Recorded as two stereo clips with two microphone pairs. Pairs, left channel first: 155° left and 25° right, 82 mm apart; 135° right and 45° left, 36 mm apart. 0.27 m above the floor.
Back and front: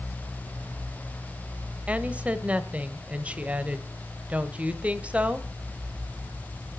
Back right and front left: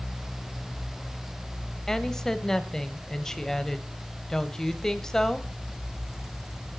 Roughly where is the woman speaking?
Ahead right.